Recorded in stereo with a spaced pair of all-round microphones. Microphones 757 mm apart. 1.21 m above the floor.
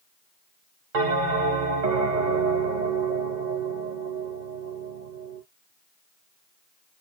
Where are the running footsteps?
I don't hear running footsteps.